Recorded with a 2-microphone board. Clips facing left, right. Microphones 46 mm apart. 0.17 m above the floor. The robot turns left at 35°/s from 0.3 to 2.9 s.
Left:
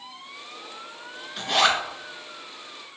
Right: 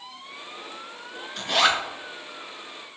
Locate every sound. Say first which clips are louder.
1.4 s a zipper: even; 5° left (ahead or behind), 0.6 m; by 1.8 s 10° right (ahead or behind), 0.6 m